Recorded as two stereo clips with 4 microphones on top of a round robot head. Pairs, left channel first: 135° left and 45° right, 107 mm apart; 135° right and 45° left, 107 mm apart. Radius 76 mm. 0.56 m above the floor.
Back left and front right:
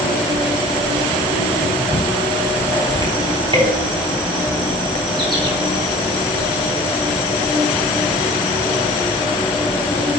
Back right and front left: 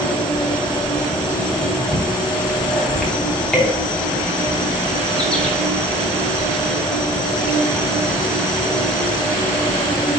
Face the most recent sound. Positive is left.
turn(degrees=-55)